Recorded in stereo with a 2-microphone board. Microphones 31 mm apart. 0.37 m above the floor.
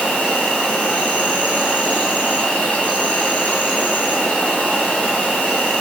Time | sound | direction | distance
0.0 | an insect | 60° left (ahead or behind) | 0.8 m